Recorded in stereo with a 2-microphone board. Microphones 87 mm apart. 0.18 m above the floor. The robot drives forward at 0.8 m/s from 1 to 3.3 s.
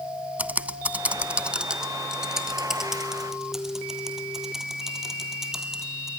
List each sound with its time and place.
0.4 s typing on a keyboard: 20° right (ahead or behind), 0.5 m; by 6.1 s 5° right (ahead or behind), 2 m